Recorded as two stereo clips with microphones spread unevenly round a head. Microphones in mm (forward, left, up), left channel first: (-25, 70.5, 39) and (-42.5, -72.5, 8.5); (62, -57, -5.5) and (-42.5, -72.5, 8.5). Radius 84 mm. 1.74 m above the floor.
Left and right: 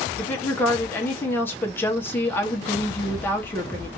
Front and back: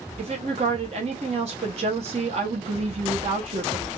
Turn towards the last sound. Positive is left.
turn(degrees=155)